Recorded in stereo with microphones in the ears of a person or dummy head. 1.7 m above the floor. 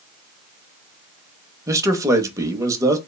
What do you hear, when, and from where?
1.7 s a man speaking: 10° right (ahead or behind), 0.6 m